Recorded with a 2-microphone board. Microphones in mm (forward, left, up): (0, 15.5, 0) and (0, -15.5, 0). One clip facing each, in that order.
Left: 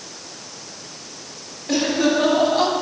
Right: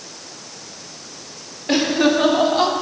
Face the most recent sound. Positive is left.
turn(degrees=-10)  # may be behind; listen again after turning